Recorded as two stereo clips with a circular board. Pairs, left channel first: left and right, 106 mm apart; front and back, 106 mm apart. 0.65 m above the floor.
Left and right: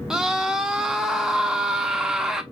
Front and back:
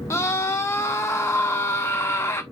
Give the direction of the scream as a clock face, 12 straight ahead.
1 o'clock.